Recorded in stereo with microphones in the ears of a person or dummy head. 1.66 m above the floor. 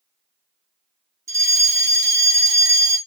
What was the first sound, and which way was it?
A fire alarm, 20° right (ahead or behind).